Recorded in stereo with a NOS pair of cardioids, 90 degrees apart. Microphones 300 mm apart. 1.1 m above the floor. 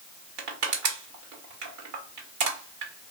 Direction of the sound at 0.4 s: 70° right.